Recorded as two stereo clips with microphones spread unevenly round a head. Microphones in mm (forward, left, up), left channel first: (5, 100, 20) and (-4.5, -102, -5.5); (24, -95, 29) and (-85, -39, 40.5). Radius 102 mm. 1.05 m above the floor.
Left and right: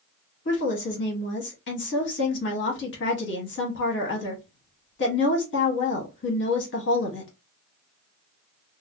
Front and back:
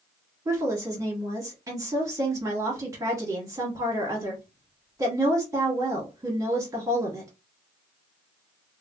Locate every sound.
0.5 s a woman speaking: 90° left, 1.0 m